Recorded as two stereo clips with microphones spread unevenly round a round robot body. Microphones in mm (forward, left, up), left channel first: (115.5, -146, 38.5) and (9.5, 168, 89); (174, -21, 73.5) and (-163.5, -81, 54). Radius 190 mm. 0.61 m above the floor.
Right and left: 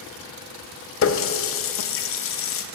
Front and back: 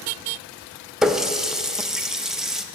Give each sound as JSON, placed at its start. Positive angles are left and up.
{"t": 1.0, "sound": "a running tap", "azimuth_deg": -85, "distance_m": 0.6}